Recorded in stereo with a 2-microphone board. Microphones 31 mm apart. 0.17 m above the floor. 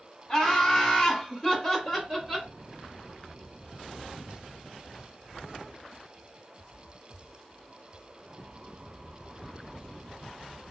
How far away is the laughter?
About 1.7 m.